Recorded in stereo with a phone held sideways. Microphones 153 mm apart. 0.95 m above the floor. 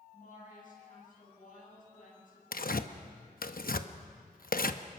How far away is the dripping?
No dripping in this recording.